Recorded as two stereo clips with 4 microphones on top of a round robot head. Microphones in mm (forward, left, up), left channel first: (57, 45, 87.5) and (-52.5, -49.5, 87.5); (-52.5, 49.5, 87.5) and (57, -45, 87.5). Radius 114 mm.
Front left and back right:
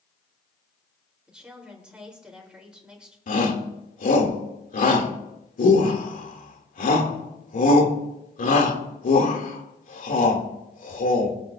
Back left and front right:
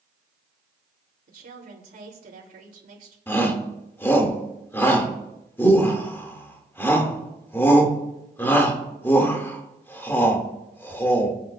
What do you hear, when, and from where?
1.3 s a woman speaking: 55° right, 3.5 m
3.3 s a shout: 65° left, 2.5 m